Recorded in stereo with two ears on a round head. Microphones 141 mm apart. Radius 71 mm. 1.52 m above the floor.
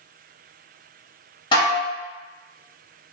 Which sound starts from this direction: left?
Dishes clattering, at 1.5 s.